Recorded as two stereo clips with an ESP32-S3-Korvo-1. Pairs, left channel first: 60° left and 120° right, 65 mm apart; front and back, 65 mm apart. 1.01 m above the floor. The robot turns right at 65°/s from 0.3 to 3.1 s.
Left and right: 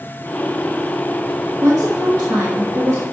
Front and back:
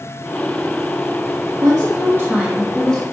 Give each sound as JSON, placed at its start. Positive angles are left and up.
{"t": 1.6, "sound": "a woman speaking", "azimuth_deg": -165, "distance_m": 1.0}